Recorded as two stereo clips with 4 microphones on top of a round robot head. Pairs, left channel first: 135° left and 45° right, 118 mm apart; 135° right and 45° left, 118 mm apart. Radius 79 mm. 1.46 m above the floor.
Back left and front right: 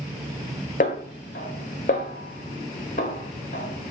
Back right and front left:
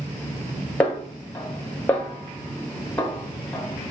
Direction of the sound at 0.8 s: 150° left.